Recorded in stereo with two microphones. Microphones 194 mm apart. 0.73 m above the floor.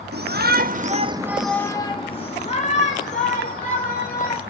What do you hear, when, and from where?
0.1 s a shout: 60° right (ahead or behind), 1.0 m; by 4.4 s 45° left (ahead or behind), 2.5 m